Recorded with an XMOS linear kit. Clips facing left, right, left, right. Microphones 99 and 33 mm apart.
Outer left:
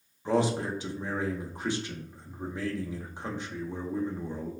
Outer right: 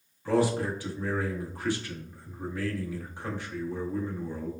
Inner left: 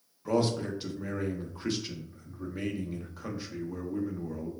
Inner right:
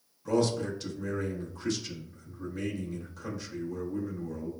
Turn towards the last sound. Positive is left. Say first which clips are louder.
# outer right 1 dB, inner right 1 dB
turn(degrees=20)  # may be behind; listen again after turning